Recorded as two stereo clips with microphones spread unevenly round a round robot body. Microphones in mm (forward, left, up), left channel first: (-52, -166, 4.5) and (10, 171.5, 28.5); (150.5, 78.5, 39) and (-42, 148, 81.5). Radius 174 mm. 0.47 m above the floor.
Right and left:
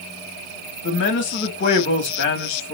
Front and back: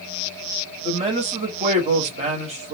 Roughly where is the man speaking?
Behind right.